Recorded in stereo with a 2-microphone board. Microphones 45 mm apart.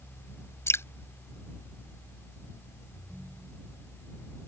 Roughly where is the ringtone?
Right.